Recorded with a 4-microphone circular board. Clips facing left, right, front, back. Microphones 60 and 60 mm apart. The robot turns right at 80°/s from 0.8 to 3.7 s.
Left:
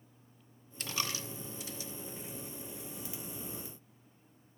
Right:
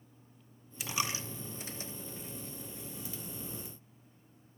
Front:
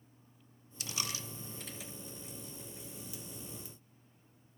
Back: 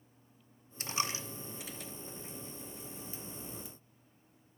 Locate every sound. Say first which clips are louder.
0.8 s a dropped coin: right 2 dB, back 5 dB; 165° right, 0.6 m; by 1.9 s 75° right, 0.6 m